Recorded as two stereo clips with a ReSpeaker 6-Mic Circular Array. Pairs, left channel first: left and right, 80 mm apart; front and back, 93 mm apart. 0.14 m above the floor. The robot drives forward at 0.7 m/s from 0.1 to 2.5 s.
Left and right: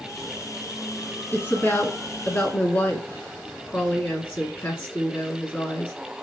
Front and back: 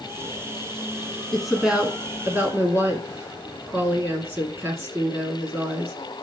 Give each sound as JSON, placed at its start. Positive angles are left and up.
{"t": 1.3, "sound": "a woman speaking", "azimuth_deg": 85, "distance_m": 1.4}